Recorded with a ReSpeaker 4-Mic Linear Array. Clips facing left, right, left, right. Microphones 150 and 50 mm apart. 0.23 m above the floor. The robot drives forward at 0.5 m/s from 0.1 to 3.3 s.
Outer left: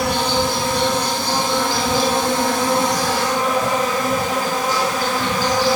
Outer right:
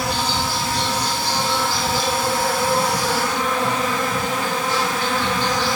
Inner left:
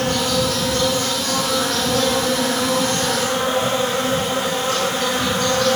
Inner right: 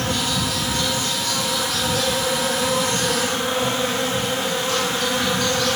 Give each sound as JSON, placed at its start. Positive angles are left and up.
{"t": 0.0, "sound": "an insect", "side_deg": 60, "distance_m": 2.5}